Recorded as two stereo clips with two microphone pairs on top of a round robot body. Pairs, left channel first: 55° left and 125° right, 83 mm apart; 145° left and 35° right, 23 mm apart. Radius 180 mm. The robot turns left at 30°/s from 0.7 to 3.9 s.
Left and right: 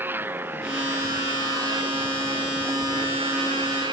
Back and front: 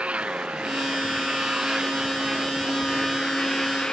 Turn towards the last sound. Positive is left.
turn(degrees=-150)